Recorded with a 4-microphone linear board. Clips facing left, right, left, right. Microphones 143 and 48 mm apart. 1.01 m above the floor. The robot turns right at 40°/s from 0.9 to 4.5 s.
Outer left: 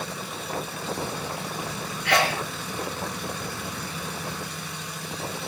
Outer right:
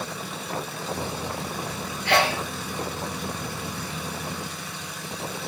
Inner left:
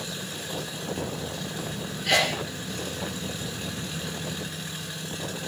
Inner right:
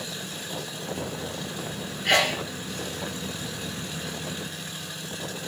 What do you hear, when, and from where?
2.0 s a sneeze: 30° right (ahead or behind), 0.9 m; by 2.4 s 20° right (ahead or behind), 0.9 m